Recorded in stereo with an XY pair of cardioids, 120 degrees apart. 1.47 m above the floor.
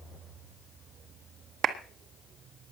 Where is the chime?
No chime in this recording.